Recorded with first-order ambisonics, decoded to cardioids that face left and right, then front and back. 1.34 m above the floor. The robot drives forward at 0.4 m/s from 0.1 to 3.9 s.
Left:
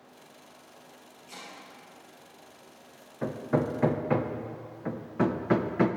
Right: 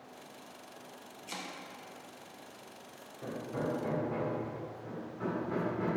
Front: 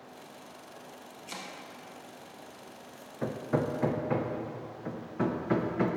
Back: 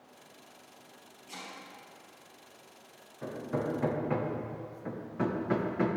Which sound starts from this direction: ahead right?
Chopping, at 1.3 s.